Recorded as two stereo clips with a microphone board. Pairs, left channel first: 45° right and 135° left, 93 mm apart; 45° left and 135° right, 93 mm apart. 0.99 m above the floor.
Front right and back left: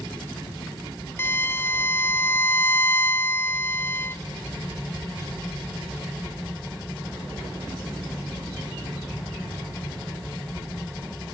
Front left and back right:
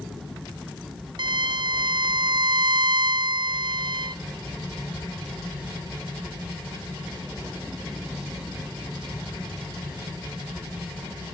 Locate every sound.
1.2 s a violin: 105° right, 0.6 m